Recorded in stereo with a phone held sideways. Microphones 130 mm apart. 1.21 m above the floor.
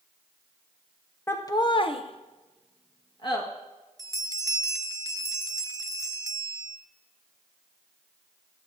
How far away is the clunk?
I don't hear a clunk.